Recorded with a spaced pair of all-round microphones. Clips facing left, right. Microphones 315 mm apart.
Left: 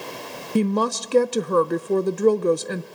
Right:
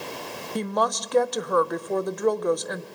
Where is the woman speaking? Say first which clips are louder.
Left 6 dB; 35° left (ahead or behind), 0.7 m.